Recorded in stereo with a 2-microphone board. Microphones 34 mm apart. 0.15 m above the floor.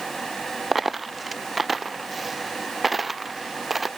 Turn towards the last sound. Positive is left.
turn(degrees=-5)  # may be behind; listen again after turning